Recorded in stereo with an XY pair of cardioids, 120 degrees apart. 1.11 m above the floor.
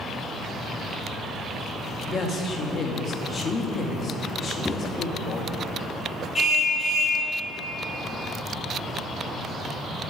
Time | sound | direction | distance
2.0 | a woman speaking | 40° left | 2.5 m
4.7 | a thud | 15° left | 2.5 m
6.3 | a car horn | 25° left | 4.5 m